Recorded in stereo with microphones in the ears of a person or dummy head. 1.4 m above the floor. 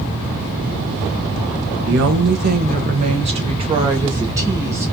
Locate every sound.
1.9 s a woman speaking: 70° right (ahead or behind), 1.0 m; by 4.9 s 15° right (ahead or behind), 1.9 m